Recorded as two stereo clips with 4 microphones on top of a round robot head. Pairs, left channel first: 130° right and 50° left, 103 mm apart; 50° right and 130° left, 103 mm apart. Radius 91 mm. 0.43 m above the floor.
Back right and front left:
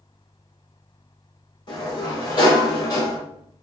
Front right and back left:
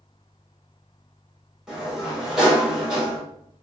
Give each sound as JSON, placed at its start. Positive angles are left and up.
{"t": 1.7, "sound": "a sliding door", "azimuth_deg": -150, "distance_m": 1.8}